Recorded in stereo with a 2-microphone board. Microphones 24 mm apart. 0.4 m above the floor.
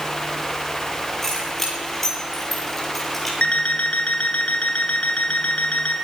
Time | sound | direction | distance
1.2 | keys jangling | 10° left (ahead or behind) | 8 m
3.4 | an alarm clock | 65° left (ahead or behind) | 3 m